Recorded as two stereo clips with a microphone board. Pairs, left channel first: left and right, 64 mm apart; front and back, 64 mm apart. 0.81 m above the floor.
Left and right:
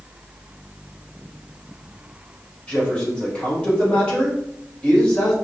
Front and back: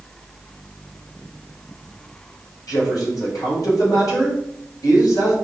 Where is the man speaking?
20° left, 3.5 m.